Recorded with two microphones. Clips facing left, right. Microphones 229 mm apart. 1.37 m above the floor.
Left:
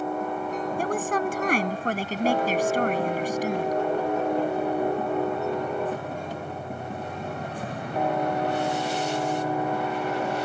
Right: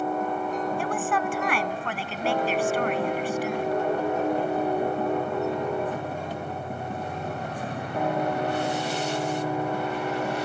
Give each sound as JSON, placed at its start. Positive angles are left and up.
{"t": 0.8, "sound": "a woman speaking", "side_deg": 40}